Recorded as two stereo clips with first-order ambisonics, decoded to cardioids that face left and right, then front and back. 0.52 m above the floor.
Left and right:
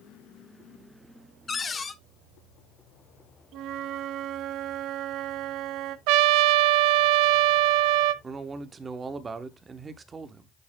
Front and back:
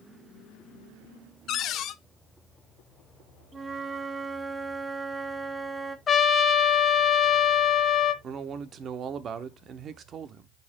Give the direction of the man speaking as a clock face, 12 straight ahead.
5 o'clock.